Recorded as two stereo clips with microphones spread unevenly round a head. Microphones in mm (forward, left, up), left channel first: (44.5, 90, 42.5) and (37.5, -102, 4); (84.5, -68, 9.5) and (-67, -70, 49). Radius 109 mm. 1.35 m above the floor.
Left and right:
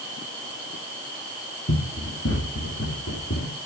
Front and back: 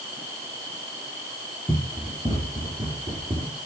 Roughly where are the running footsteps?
Left.